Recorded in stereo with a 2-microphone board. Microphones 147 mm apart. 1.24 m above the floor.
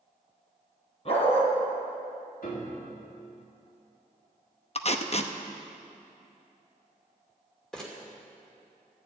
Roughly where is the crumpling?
Centre.